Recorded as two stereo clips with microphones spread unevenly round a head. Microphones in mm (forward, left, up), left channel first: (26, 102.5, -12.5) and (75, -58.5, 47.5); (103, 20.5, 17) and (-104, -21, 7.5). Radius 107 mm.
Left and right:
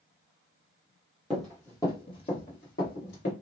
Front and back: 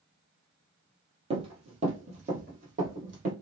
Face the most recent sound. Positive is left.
turn(degrees=145)